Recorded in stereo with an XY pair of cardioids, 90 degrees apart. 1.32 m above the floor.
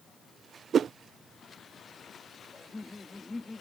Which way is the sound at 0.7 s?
60° right.